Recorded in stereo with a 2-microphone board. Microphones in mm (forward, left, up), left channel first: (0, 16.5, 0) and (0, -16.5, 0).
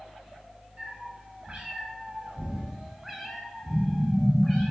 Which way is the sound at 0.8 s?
25° right (ahead or behind).